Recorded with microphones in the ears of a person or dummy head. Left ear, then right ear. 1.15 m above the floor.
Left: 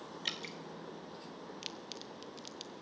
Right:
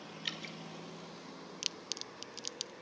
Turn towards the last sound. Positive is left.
turn(degrees=-25)  # may be behind; listen again after turning